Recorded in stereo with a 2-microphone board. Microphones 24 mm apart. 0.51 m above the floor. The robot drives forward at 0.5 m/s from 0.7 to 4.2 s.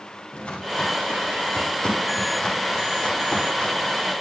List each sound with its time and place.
0.3 s footsteps: 50° left (ahead or behind), 8.5 m; by 4.1 s 40° left (ahead or behind), 10 m